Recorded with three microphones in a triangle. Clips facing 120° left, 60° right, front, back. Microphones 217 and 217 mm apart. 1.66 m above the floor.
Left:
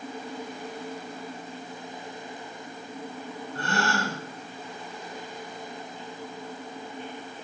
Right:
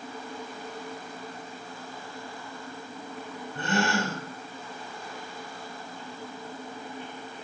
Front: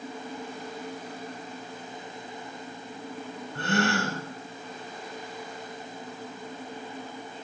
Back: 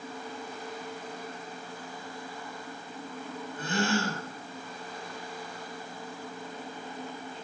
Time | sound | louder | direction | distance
3.5 | a gasp | right 2 dB, front 2 dB | 15° left | 5.5 m